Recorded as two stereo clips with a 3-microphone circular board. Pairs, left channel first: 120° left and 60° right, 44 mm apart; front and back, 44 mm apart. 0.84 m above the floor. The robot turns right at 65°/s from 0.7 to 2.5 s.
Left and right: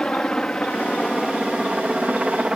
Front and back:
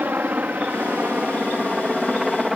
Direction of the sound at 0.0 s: 175° right.